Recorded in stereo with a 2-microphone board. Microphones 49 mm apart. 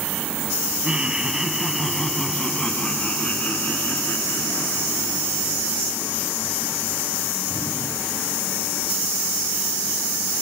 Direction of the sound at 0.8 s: 20° right (ahead or behind).